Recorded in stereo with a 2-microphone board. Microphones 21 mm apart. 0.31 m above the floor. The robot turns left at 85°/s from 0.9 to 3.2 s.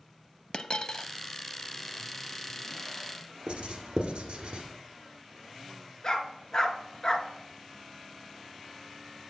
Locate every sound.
0.5 s a dropped coin: 50° left (ahead or behind), 0.6 m; by 1.1 s 35° left (ahead or behind), 0.6 m
3.5 s writing: 85° right, 1.5 m
6.0 s a dog barking: 30° left (ahead or behind), 1.1 m